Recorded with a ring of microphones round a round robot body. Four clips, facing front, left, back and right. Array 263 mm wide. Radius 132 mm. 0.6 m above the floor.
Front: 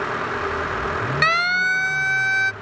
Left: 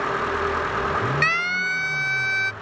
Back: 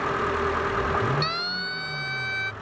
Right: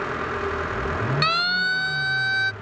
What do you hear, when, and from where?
1.2 s a siren: 15° right; by 2.5 s 20° right